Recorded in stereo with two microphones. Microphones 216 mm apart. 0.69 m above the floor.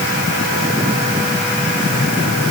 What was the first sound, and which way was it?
Only background noise.